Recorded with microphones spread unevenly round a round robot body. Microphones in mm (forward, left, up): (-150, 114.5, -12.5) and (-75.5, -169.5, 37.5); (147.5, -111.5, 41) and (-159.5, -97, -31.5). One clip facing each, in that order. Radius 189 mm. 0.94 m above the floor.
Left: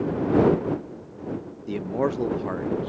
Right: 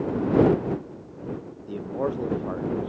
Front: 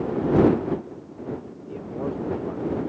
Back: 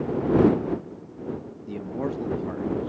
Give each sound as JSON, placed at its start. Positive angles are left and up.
{"t": 1.7, "sound": "a man speaking", "azimuth_deg": 140}